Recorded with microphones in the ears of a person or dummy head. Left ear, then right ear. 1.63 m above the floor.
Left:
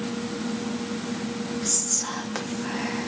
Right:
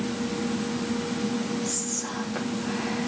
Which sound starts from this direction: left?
Whispering, at 1.6 s.